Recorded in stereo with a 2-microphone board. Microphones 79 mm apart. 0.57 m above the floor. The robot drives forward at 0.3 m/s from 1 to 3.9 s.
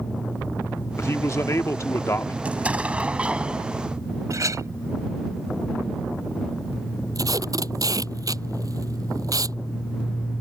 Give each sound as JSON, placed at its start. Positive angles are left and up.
{"t": 1.0, "sound": "a man speaking", "side_deg": 35}
{"t": 2.5, "sound": "an explosion", "side_deg": -15}
{"t": 4.3, "sound": "a clink", "side_deg": -45}
{"t": 7.2, "sound": "tape being pulled", "side_deg": -50}